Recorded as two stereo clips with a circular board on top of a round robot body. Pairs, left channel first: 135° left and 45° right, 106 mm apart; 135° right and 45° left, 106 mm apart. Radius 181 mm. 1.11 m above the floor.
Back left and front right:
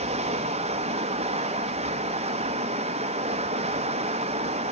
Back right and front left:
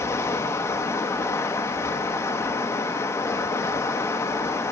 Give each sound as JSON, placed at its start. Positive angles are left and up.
{"t": 0.0, "sound": "running water", "azimuth_deg": -65, "distance_m": 0.7}